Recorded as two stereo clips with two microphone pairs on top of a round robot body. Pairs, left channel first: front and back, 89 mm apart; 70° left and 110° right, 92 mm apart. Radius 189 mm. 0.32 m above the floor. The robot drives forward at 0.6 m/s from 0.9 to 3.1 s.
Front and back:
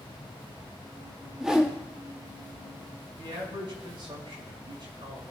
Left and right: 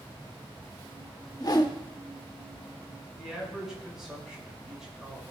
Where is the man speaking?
165° left, 5 m.